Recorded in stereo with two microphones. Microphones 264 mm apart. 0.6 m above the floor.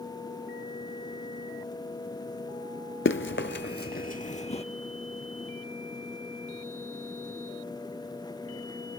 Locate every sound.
3.0 s running footsteps: 50° left (ahead or behind), 0.8 m; by 4.6 s 25° left (ahead or behind), 1.1 m